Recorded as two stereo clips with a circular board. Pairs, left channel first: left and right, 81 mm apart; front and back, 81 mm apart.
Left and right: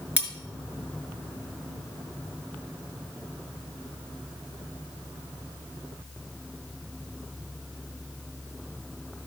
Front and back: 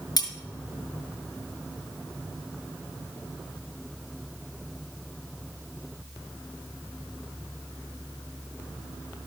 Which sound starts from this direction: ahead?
Cutlery clinking, at 0.2 s.